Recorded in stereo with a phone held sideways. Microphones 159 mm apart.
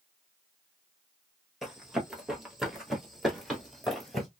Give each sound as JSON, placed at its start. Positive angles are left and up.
{"t": 1.6, "sound": "running footsteps", "side_deg": 0, "distance_m": 1.4}